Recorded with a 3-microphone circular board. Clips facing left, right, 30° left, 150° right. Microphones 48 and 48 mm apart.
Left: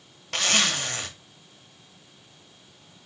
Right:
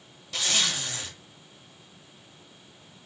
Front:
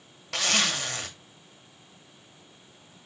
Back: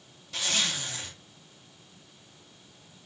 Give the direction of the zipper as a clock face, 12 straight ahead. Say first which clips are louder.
Left 4 dB, front 4 dB; 10 o'clock.